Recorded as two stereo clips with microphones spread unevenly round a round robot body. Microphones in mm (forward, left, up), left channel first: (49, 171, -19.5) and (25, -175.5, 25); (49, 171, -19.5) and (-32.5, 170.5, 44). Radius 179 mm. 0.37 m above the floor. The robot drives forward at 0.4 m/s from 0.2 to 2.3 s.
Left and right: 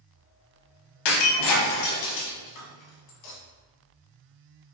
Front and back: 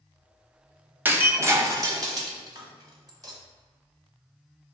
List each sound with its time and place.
1.1 s breaking glass: 100° left, 0.9 m; by 3.4 s 125° left, 1.1 m